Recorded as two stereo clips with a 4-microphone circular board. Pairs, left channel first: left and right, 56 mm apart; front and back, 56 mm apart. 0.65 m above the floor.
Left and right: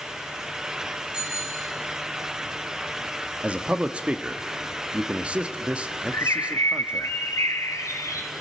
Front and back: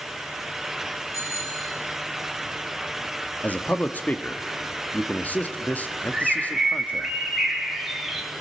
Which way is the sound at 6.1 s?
95° left.